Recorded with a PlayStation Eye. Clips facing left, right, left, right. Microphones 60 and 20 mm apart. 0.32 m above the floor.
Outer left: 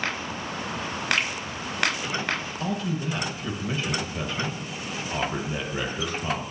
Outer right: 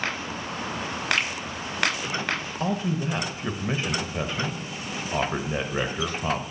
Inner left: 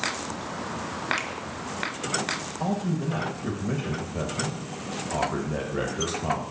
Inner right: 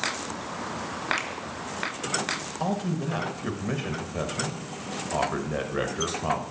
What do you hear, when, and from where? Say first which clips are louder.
1.2 s a finger snap: outer left 1 dB, inner left 1 dB; centre (ahead or behind), 0.7 m
2.6 s a man speaking: outer right 4 dB, inner left 1 dB; 25° right (ahead or behind), 0.9 m